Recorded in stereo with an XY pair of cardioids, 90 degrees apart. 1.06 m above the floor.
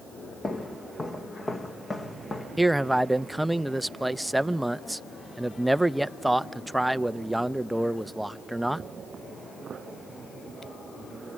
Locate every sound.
0.4 s footsteps: 35° left, 3.5 m
2.6 s a man speaking: 5° right, 0.7 m